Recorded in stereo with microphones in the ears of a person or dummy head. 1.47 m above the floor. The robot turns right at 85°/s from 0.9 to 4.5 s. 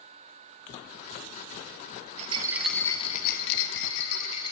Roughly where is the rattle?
Ahead right.